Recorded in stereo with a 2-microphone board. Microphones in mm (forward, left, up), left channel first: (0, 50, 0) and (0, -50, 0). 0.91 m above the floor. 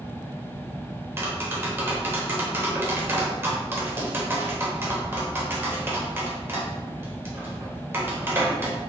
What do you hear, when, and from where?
1.2 s tapping: 25° right (ahead or behind), 0.7 m